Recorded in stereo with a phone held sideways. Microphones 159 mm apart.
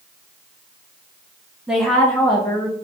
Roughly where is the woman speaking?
Centre.